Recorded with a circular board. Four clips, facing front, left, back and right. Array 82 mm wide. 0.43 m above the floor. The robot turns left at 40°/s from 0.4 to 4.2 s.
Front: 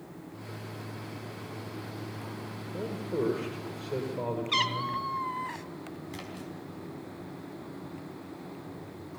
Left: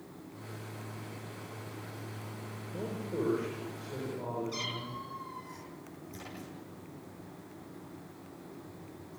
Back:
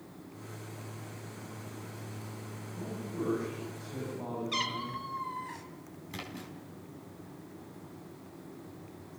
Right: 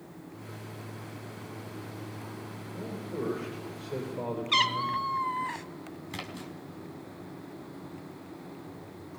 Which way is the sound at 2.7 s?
25° left.